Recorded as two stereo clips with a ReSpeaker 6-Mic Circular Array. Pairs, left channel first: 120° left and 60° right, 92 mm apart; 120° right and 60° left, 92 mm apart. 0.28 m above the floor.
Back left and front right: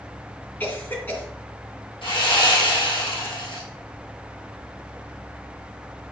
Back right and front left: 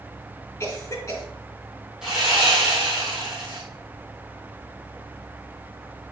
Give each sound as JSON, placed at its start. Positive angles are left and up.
{"t": 0.6, "sound": "a cough", "azimuth_deg": -175, "distance_m": 3.0}
{"t": 2.0, "sound": "sawing", "azimuth_deg": 145, "distance_m": 3.5}